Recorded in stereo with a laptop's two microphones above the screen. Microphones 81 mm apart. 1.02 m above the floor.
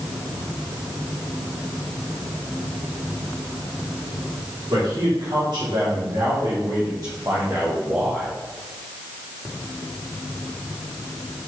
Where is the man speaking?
75° right (ahead or behind), 3 m; by 8.3 s 15° right (ahead or behind), 2 m.